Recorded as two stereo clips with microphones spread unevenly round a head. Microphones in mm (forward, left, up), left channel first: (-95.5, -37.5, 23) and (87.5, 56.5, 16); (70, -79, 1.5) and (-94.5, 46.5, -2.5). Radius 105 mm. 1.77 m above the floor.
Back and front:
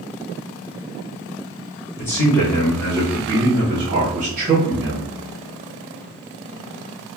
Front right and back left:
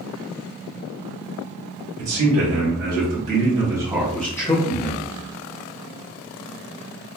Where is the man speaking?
130° left, 1.3 m; by 5.1 s straight ahead, 1.0 m.